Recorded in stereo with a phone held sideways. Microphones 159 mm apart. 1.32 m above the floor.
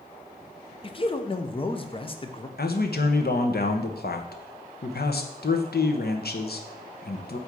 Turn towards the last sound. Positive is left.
turn(degrees=80)